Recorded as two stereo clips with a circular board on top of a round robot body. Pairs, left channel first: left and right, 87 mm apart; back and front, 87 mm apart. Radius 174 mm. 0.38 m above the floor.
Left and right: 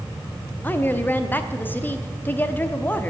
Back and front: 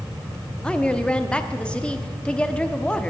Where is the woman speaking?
120° left, 1.1 m.